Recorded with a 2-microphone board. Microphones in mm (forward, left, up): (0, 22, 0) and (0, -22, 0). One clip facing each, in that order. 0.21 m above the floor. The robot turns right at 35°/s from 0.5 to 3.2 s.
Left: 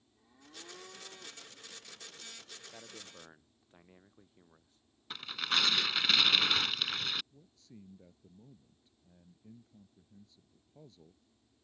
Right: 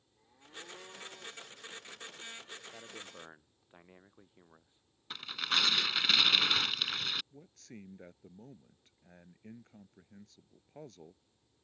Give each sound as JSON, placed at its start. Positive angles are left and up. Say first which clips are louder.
{"t": 2.7, "sound": "a man speaking", "louder": "right 3 dB", "side_deg": 0}
{"t": 5.1, "sound": "tearing paper", "louder": "even", "side_deg": 0}
{"t": 7.3, "sound": "a man speaking", "louder": "right 5 dB", "side_deg": -70}